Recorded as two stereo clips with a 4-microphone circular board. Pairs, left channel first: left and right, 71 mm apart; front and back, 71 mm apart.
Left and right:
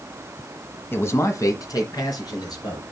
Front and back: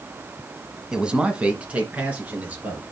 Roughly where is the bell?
No bell in this recording.